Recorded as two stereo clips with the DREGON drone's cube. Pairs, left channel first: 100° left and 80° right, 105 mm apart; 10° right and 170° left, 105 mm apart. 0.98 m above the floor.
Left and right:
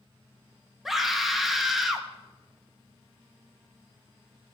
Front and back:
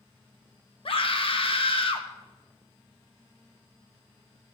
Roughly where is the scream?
Ahead.